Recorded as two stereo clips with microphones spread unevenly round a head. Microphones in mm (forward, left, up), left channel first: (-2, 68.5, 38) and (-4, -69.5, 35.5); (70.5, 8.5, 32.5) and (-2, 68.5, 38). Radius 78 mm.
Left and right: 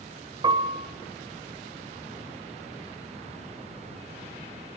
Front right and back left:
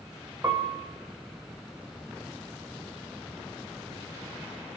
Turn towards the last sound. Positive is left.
turn(degrees=-150)